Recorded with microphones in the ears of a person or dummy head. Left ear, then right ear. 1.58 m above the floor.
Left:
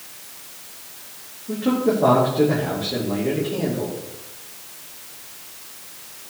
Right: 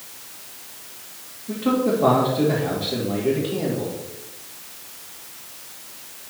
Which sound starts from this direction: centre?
A man speaking, at 1.5 s.